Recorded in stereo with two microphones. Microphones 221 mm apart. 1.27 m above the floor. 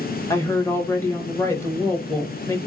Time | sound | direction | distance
0.3 | a woman speaking | 10° left (ahead or behind) | 1.3 m